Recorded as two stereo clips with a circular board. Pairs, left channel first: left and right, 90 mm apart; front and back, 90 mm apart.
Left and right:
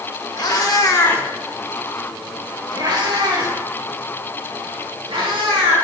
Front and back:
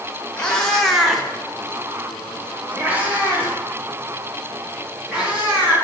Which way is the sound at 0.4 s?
80° left.